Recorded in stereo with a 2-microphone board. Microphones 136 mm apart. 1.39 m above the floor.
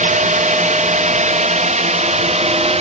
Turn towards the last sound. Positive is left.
turn(degrees=-50)  # may be behind; listen again after turning